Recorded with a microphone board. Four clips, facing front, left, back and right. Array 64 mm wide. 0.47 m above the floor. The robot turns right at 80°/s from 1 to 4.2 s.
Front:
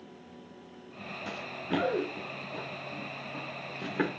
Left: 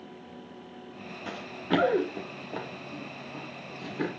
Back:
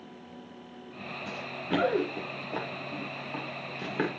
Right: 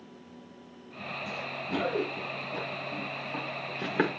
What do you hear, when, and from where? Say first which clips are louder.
1.3 s running footsteps: left 6 dB, back 2 dB; 60° left, 3 m; by 4.1 s 90° right, 4.5 m